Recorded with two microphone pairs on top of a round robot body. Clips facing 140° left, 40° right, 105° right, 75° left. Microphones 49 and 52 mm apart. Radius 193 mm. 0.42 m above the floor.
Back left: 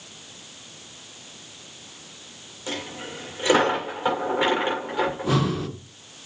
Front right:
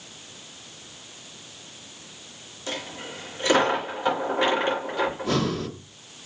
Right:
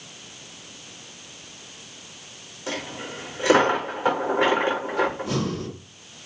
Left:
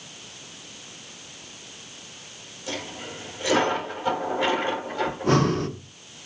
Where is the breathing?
65° left, 1.4 m.